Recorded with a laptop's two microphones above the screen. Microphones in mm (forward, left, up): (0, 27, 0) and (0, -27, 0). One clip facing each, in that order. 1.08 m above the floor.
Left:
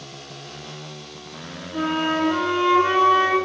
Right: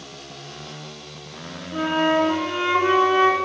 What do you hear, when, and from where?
1.7 s a flute: 25° right (ahead or behind), 0.8 m